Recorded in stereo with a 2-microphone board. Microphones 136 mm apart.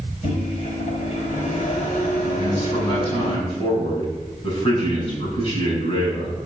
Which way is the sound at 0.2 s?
65° left (ahead or behind).